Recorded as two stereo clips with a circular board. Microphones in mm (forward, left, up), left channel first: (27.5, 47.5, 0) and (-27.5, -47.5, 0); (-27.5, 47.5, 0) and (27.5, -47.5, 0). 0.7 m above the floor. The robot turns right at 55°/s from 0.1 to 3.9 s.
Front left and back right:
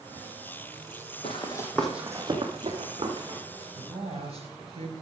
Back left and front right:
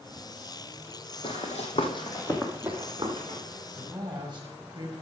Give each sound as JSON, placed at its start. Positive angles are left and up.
{"t": 1.2, "sound": "running footsteps", "azimuth_deg": 90, "distance_m": 2.0}
{"t": 3.8, "sound": "a woman speaking", "azimuth_deg": -115, "distance_m": 4.0}